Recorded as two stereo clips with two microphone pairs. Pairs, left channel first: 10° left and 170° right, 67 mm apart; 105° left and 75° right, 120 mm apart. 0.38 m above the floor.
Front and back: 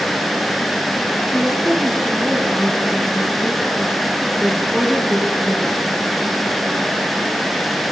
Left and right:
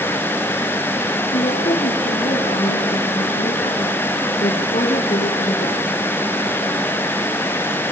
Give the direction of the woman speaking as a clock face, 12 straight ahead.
8 o'clock.